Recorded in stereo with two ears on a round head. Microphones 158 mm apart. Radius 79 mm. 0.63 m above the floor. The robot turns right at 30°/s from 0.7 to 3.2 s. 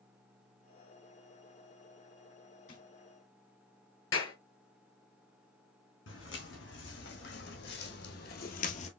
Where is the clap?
85° left, 2.5 m.